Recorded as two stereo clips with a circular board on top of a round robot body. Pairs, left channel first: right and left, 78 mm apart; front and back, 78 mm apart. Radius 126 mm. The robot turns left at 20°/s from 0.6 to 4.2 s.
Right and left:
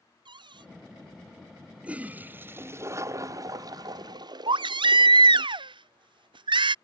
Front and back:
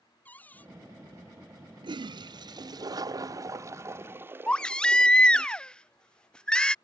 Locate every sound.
0.2 s a cupboard door: 70° left; by 0.7 s 65° left
1.8 s a toilet flushing: 165° left; by 5.5 s 115° left
4.5 s a baby crying: 80° left